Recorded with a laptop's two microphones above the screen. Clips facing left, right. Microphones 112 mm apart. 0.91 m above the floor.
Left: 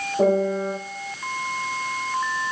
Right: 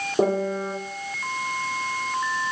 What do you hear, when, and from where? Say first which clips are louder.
0.2 s a piano: left 3 dB; 60° right (ahead or behind), 2.5 m